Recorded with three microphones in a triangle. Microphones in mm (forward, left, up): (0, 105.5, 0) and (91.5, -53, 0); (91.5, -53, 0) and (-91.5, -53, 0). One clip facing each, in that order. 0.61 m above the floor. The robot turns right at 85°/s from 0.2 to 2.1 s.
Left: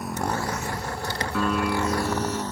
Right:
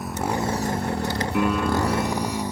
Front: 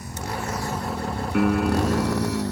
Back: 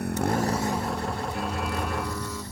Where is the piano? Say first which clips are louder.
Right 2 dB, front 10 dB; 10° left; by 2.4 s 75° left.